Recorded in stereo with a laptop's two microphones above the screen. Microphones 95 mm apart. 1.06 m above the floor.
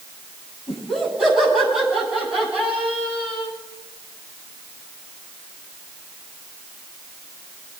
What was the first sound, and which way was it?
Laughter, 5° right (ahead or behind).